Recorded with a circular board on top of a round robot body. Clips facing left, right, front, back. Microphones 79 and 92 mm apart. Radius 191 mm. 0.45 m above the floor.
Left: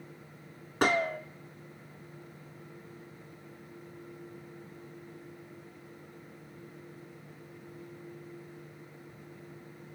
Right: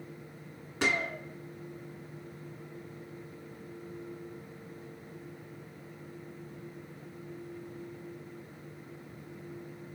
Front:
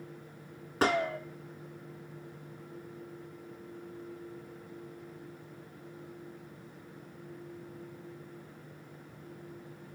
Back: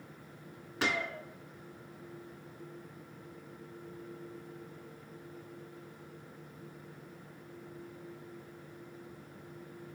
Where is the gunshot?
50° left, 0.6 m.